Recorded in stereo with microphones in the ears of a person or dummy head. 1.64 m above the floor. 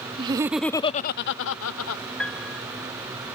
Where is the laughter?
25° right (ahead or behind); by 2.0 s 85° left.